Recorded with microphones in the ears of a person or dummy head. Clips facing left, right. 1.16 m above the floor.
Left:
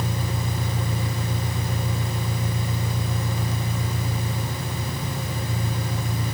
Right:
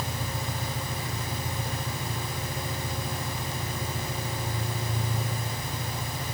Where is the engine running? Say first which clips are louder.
Left 5 dB; 25° left (ahead or behind), 4 m.